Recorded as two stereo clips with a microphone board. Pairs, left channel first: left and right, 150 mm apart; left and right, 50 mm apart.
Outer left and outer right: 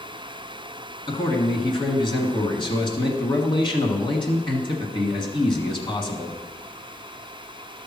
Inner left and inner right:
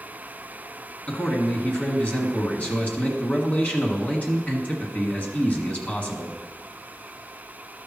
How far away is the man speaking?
About 1.6 m.